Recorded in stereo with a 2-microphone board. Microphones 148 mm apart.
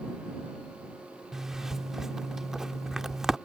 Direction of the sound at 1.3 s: 5° right (ahead or behind).